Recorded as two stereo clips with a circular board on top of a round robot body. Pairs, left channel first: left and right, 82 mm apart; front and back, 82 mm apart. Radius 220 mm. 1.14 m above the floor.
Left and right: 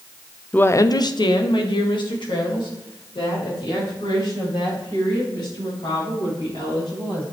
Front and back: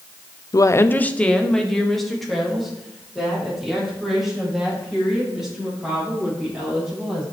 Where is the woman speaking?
20° left, 0.7 m; by 7.2 s 95° left, 9 m.